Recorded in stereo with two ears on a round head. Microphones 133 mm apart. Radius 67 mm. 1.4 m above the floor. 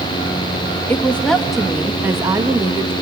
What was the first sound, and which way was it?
A woman speaking, 15° left (ahead or behind).